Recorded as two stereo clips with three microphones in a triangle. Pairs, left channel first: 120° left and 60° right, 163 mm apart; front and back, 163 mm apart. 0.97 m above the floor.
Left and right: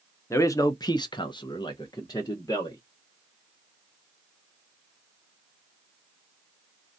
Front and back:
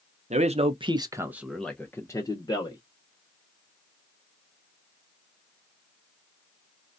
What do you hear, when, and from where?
0.3 s a man speaking: 175° right, 0.7 m; by 2.8 s 55° left, 1.0 m